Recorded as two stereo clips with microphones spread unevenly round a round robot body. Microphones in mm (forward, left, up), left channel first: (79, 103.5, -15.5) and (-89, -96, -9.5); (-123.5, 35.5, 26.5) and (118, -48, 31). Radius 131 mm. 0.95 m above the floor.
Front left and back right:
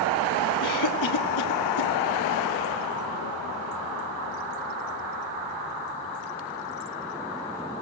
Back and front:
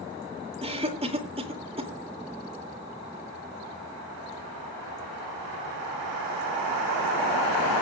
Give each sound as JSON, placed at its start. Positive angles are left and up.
{"t": 0.6, "sound": "a cough", "azimuth_deg": 50, "distance_m": 2.5}